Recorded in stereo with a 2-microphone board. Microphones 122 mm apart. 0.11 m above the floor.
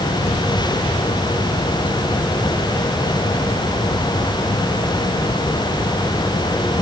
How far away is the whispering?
I don't hear whispering.